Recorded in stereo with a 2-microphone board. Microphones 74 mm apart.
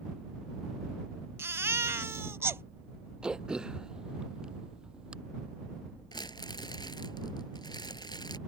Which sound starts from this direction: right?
A baby crying, at 1.4 s.